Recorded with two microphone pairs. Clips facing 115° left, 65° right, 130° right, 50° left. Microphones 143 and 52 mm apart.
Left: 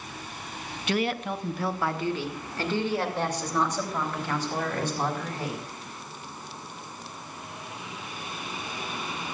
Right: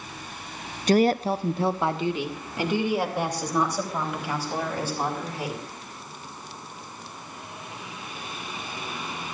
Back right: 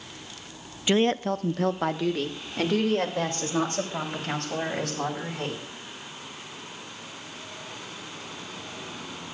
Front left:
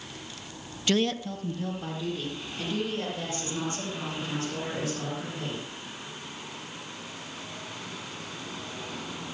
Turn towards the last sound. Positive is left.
turn(degrees=-150)